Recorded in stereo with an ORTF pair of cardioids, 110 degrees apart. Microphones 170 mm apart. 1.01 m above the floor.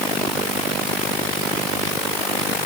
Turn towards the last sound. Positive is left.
No sound to turn to.